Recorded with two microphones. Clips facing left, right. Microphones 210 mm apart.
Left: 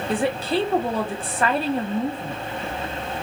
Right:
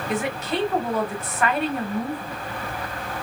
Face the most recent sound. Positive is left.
turn(degrees=30)  # may be behind; listen again after turning